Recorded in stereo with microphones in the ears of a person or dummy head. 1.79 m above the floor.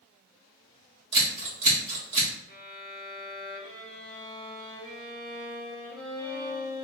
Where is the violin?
5° right (ahead or behind), 0.8 m.